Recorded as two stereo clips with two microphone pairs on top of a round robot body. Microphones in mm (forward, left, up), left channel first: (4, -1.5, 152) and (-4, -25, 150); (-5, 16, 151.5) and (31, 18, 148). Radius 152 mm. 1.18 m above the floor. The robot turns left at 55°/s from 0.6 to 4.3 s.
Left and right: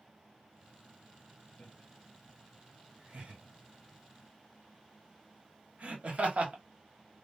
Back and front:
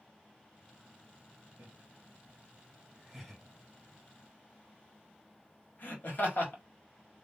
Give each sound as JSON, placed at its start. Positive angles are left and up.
{"t": 1.6, "sound": "laughter", "azimuth_deg": 15, "distance_m": 1.6}